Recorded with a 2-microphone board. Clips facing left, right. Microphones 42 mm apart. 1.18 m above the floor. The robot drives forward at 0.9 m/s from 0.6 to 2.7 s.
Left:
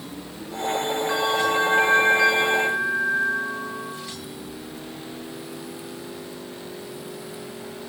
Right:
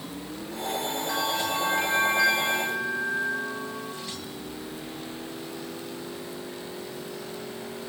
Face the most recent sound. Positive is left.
turn(degrees=20)  # may be behind; listen again after turning